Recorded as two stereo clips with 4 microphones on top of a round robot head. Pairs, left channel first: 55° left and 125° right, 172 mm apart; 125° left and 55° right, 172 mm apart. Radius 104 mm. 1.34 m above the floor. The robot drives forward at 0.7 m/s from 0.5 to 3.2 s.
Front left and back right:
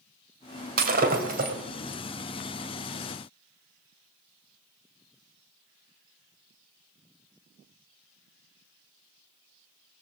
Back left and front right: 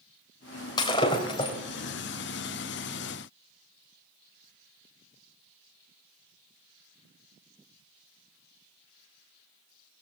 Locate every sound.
0.8 s breaking glass: 165° right, 2.5 m; by 1.6 s 170° right, 3 m